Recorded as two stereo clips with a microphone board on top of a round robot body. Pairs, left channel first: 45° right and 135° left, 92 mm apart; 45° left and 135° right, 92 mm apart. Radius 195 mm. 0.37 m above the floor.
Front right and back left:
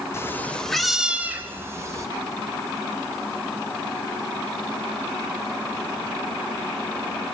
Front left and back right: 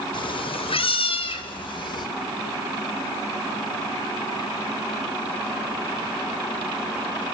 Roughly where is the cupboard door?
No cupboard door in this recording.